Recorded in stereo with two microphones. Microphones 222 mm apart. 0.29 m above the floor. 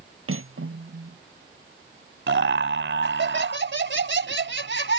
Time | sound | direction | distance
0.3 | cutlery clinking | 70° right (ahead or behind) | ?
2.3 | laughter | 60° right (ahead or behind) | ?